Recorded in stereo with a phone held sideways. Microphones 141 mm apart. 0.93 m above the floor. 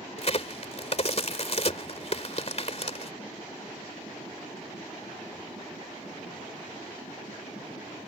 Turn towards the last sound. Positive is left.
turn(degrees=50)  # may be behind; listen again after turning